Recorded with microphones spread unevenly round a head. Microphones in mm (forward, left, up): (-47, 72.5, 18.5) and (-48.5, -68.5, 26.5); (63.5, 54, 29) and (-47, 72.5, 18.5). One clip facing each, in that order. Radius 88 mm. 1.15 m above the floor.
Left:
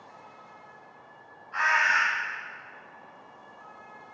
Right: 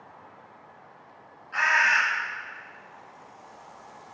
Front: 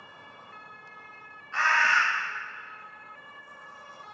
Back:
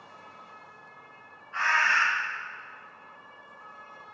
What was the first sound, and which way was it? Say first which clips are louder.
A bird: right 1 dB, front 2 dB; 40° right.